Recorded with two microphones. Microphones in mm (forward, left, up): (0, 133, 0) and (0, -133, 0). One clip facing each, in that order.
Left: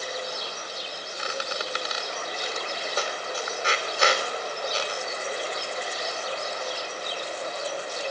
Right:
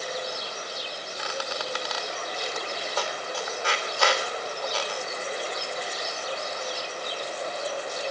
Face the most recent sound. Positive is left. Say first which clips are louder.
# left 1 dB
turn(degrees=20)  # may be behind; listen again after turning